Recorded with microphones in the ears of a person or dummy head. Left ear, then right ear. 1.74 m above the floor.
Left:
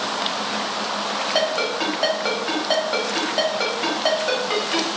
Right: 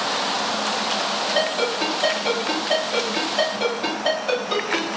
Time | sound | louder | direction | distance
1.4 | a ringtone | left 2 dB | 55° left (ahead or behind) | 1.6 m